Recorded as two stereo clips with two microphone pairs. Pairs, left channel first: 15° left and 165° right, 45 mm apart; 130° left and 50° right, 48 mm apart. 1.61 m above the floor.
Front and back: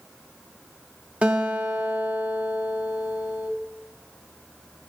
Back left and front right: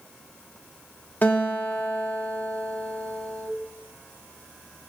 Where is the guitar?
145° left, 1.3 m.